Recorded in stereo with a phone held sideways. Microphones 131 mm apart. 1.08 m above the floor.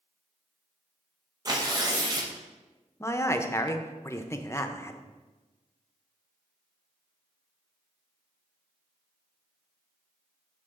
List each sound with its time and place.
1.4 s tearing paper: 30° right (ahead or behind), 0.8 m
3.0 s a man speaking: 20° left (ahead or behind), 0.5 m